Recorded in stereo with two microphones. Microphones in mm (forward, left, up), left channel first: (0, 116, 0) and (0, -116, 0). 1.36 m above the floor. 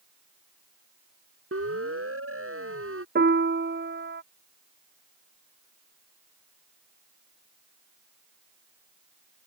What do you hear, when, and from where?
1.5 s a siren: 75° right (ahead or behind); by 3.0 s 70° right (ahead or behind)
3.1 s a piano: 50° right (ahead or behind)